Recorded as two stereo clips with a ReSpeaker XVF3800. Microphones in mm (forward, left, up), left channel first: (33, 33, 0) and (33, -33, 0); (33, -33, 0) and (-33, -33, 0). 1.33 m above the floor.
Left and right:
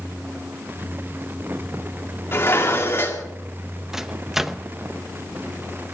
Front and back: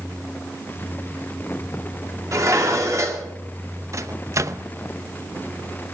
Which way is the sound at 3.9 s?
170° right.